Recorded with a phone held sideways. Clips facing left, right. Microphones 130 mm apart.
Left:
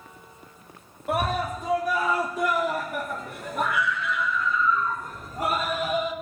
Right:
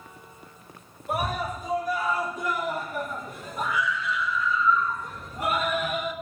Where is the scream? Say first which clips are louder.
Left 3 dB; 70° left (ahead or behind), 4 m; by 6.1 s 30° left (ahead or behind), 4.5 m.